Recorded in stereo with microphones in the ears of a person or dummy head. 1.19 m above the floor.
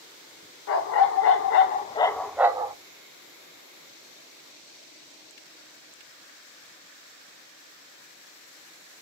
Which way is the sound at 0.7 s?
65° left (ahead or behind).